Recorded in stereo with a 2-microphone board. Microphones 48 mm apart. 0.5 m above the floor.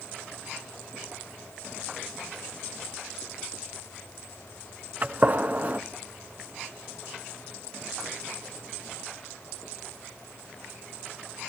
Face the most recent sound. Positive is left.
turn(degrees=-40)  # may be behind; listen again after turning